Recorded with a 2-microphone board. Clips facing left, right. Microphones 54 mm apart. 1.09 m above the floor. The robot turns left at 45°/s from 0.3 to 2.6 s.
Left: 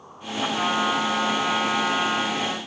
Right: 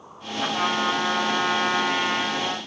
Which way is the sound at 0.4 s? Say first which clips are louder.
Even; 40° right.